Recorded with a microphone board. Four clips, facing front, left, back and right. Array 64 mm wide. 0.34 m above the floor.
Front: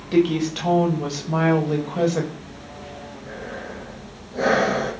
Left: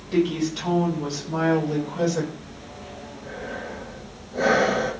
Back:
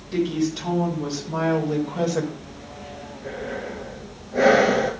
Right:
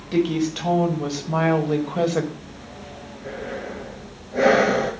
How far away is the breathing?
About 4.5 m.